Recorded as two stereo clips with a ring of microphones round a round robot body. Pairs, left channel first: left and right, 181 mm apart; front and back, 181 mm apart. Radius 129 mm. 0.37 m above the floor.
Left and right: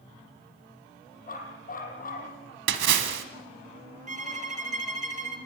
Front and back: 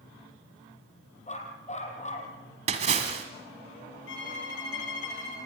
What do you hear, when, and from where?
1.3 s a dog barking: 50° left, 6 m
2.7 s a splash: 115° right, 1.6 m
4.1 s a violin: 45° right, 3.5 m